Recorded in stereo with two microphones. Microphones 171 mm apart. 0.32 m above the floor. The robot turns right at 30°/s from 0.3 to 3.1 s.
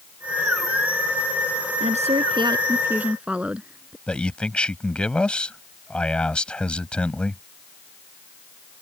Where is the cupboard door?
No cupboard door in this recording.